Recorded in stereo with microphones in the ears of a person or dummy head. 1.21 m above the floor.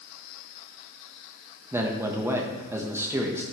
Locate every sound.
1.7 s a man speaking: 15° right (ahead or behind), 1.5 m